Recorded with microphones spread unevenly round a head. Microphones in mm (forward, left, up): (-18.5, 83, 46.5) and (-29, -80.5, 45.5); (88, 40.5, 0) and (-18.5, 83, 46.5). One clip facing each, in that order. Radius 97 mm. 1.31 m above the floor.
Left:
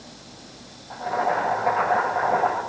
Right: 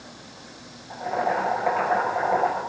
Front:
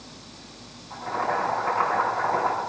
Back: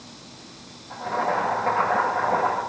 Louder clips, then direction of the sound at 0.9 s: Left 1 dB, back 2 dB; 170° right.